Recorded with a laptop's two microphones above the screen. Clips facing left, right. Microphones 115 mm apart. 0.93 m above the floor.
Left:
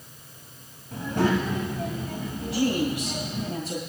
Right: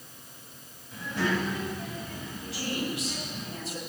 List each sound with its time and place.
0.9 s a child speaking: 50° left (ahead or behind), 4.5 m; by 3.5 s 70° left (ahead or behind), 4 m
2.5 s a woman speaking: 80° left, 7.5 m